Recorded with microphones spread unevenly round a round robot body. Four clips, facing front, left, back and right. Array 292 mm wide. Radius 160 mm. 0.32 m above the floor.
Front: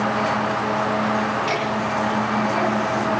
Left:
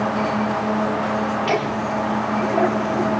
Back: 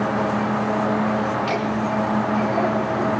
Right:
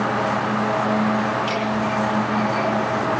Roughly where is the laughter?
Left.